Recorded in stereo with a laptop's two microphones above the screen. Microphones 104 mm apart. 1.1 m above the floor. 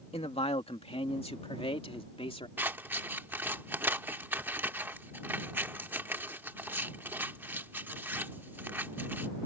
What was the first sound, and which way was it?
A man speaking, 70° left (ahead or behind).